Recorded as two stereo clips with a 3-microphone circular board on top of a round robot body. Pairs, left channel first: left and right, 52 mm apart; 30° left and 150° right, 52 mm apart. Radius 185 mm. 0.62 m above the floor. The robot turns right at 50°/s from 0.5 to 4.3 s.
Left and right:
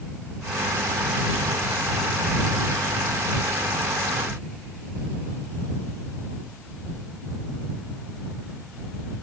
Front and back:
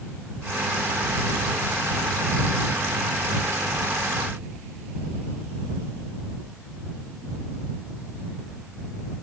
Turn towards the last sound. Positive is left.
No sound to turn to.